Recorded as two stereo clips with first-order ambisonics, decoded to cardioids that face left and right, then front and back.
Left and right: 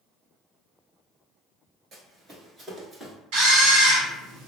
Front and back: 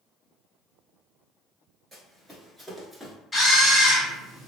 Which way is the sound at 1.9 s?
115° right.